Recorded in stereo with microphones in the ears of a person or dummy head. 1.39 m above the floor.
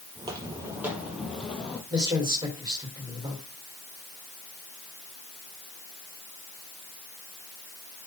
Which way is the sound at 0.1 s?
25° right (ahead or behind).